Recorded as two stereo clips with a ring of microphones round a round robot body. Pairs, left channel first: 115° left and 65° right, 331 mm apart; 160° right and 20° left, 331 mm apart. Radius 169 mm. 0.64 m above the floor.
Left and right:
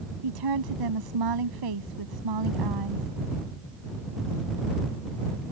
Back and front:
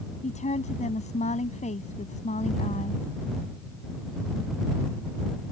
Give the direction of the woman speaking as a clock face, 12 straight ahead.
3 o'clock.